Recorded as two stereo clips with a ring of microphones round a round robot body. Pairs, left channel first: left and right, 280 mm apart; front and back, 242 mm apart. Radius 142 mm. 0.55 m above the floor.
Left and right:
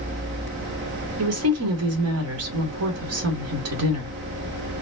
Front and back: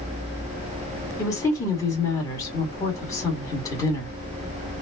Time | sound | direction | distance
1.2 | a woman speaking | 75° right | 2 m